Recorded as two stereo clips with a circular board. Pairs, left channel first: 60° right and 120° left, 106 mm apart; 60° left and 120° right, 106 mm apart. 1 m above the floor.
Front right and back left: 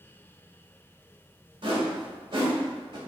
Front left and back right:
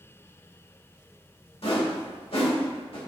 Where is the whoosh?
80° left, 2.0 m.